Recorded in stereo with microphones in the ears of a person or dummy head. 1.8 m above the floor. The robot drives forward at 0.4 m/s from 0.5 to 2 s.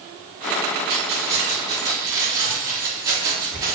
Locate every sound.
0.9 s keys jangling: 30° right (ahead or behind), 1.1 m; by 3.8 s 20° right (ahead or behind), 1.4 m